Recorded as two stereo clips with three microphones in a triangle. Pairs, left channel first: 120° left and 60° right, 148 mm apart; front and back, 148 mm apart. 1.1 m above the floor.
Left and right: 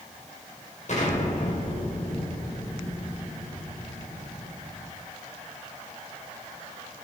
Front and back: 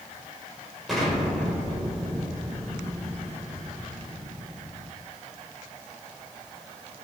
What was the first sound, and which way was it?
An explosion, 90° left.